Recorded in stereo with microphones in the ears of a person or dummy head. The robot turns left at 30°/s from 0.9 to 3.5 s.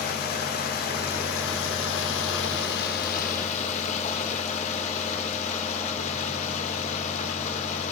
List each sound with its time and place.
0.0 s running water: 120° left, 1.8 m; by 7.9 s 45° left, 1.8 m